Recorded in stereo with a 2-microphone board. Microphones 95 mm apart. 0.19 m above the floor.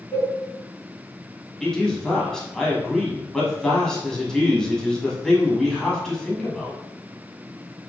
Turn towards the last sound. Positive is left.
turn(degrees=5)  # may be behind; listen again after turning